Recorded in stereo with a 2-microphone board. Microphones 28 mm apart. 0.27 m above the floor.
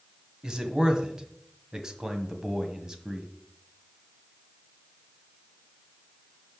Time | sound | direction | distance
0.4 | a man speaking | 20° right (ahead or behind) | 1.7 m